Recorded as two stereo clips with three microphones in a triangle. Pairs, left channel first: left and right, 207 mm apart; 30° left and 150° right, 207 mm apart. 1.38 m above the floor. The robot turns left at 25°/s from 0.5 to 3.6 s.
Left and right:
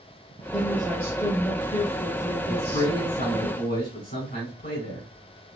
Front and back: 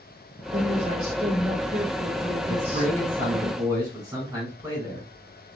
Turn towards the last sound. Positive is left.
turn(degrees=130)